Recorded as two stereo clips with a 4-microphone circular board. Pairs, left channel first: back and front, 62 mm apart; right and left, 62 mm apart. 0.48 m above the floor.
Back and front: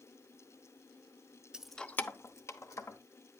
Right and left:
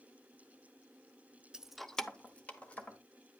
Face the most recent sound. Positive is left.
turn(degrees=-155)